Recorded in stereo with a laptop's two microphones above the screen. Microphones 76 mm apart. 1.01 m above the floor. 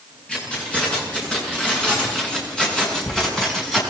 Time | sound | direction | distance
0.3 | keys jangling | 15° left (ahead or behind) | 8 m